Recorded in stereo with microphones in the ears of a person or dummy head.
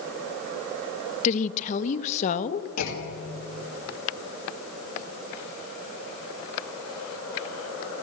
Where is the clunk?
80° left, 2.5 m.